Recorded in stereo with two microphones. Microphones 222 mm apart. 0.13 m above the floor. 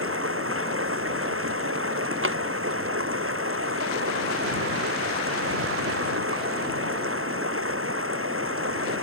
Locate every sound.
0.0 s running water: 75° right (ahead or behind)
2.2 s a drawer: 70° right (ahead or behind)